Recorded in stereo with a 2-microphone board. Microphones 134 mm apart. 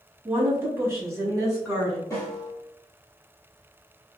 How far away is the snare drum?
About 1.5 m.